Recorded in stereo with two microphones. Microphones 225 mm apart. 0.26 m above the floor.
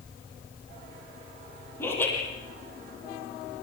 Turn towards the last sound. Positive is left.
turn(degrees=10)  # may be behind; listen again after turning